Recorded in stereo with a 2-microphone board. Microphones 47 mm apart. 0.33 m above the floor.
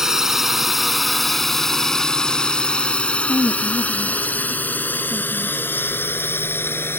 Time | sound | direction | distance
0.0 | a drone | 10° right (ahead or behind) | ?
3.2 | a woman speaking | 65° left (ahead or behind) | ?